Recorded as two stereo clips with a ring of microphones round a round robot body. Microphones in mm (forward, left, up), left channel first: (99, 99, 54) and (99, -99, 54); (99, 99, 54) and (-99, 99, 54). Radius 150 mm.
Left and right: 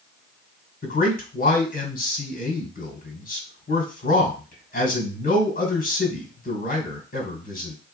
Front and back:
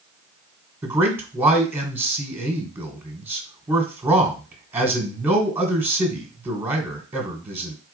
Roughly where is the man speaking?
Left.